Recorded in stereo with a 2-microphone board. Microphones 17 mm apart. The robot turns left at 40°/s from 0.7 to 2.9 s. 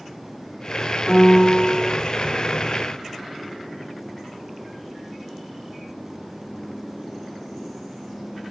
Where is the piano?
25° right, 3 m; by 1.9 s 55° right, 3 m.